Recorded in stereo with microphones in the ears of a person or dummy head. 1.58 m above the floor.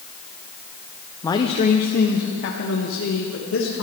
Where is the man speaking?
20° left (ahead or behind), 0.8 m; by 3.8 s 85° left, 2.5 m.